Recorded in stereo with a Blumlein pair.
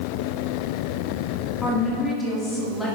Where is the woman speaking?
20° left, 2.0 m.